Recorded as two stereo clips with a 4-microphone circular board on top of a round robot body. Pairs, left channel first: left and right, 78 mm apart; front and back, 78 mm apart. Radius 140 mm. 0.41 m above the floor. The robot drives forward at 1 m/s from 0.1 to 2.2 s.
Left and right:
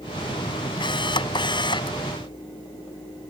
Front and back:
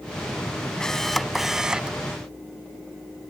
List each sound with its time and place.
0.8 s a camera shutter: 80° left; by 2.0 s 105° left